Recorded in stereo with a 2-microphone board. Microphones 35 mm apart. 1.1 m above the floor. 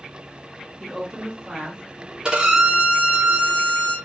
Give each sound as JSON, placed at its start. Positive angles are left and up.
{"t": 0.8, "sound": "a woman speaking", "side_deg": -10, "distance_m": 0.8}
{"t": 2.2, "sound": "a violin", "side_deg": -25, "distance_m": 0.8}